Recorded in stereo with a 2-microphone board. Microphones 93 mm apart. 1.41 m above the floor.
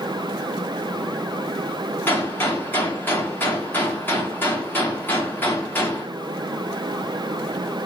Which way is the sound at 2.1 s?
20° left (ahead or behind).